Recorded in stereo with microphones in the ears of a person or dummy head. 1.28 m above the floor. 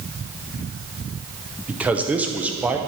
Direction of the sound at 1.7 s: 5° right (ahead or behind).